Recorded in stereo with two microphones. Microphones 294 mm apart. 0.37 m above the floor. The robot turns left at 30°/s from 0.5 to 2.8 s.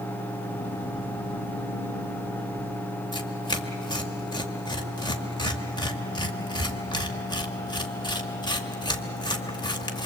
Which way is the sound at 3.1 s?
15° left (ahead or behind).